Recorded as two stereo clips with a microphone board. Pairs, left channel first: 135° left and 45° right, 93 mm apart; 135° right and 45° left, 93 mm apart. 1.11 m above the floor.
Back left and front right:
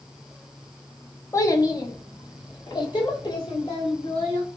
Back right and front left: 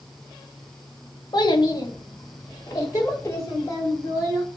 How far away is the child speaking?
About 0.7 m.